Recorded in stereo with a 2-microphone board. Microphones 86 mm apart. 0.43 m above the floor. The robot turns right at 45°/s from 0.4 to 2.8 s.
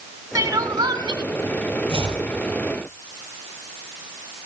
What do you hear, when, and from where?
0.3 s crying: 140° right, 1.1 m; by 1.2 s 100° right, 1.1 m
1.9 s chopping: 80° right, 6.5 m